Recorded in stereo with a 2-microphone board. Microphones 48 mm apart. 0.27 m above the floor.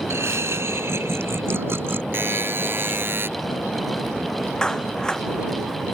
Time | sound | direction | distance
0.1 | laughter | 70° right (ahead or behind) | ?
2.1 | a buzzer | 50° right (ahead or behind) | ?
4.6 | a clap | 15° left (ahead or behind) | ?